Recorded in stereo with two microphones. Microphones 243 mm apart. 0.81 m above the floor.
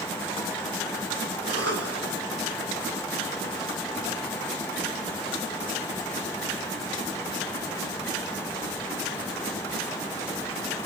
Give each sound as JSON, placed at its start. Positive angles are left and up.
{"t": 1.5, "sound": "a cough", "side_deg": -75, "distance_m": 3.5}